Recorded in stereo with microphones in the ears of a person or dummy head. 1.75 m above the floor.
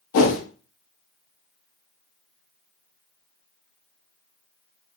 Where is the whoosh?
70° left (ahead or behind), 0.5 m.